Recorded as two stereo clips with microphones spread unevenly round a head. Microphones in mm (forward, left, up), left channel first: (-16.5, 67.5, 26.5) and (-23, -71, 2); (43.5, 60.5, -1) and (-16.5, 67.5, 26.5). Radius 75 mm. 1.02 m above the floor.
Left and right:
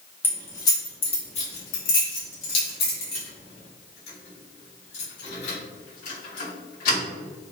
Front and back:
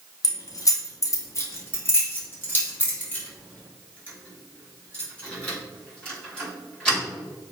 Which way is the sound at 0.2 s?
10° left.